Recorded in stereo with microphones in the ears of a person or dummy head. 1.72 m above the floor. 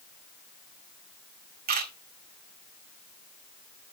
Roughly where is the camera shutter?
Right.